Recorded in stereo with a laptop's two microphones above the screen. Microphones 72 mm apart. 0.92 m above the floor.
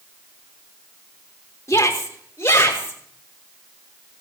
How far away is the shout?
About 2.5 m.